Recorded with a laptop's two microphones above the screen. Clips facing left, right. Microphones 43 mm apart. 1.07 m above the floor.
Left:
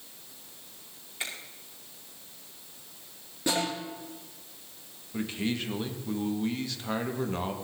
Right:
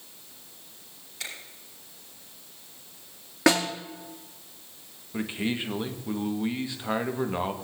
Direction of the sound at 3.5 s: 75° right (ahead or behind).